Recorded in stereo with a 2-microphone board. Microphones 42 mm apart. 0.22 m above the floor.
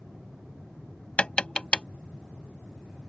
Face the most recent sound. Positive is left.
turn(degrees=30)  # may be behind; listen again after turning